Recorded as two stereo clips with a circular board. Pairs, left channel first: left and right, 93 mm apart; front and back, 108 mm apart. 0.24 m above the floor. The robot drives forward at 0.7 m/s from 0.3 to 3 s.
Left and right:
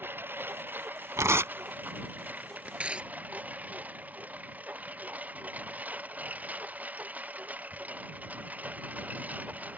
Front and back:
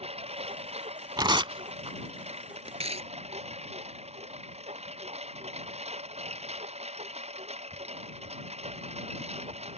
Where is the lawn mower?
160° right; by 9.8 s 165° right.